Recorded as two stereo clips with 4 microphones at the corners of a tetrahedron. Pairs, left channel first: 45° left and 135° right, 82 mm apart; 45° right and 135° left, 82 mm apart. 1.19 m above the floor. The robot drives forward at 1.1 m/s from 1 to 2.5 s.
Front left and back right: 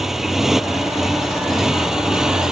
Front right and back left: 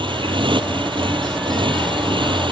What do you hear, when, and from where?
0.0 s a motorcycle: 140° left